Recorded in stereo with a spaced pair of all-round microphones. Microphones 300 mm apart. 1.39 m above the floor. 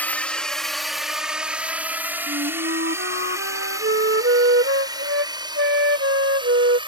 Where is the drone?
5° left (ahead or behind); by 6.9 s 15° right (ahead or behind).